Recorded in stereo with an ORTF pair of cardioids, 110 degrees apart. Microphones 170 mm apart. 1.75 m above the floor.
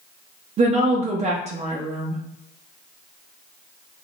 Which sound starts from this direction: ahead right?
A woman speaking, at 0.6 s.